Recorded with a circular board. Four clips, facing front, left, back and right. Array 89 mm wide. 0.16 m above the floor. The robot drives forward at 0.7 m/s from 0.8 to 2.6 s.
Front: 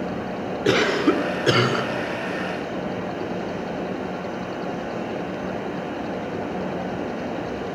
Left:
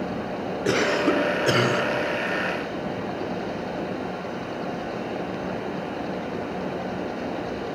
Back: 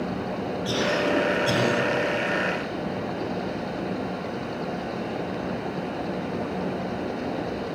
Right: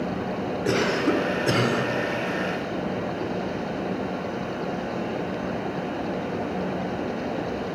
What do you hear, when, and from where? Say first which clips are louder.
0.7 s a cough: left 1 dB, front 6 dB; 15° left, 3 m; by 1.9 s 20° left, 2.5 m